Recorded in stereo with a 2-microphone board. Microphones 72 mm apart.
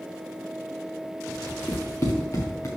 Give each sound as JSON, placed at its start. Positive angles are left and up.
{"t": 1.7, "sound": "running footsteps", "side_deg": 45, "distance_m": 2.5}